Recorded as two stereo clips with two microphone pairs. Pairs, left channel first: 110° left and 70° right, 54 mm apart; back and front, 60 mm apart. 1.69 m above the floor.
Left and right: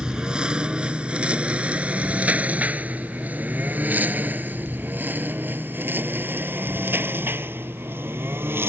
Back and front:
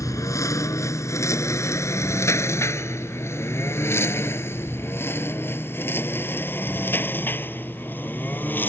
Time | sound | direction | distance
0.0 | a lawn mower | 150° right | ?